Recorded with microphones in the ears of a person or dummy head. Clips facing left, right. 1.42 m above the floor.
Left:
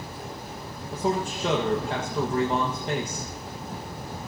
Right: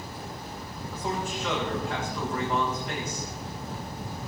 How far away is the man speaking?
About 1.6 m.